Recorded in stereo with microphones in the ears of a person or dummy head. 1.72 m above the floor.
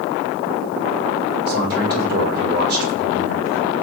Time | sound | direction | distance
1.5 | a man speaking | 60° right (ahead or behind) | 7.5 m